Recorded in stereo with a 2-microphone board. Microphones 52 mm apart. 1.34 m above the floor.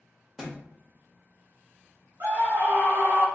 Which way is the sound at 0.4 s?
10° right (ahead or behind).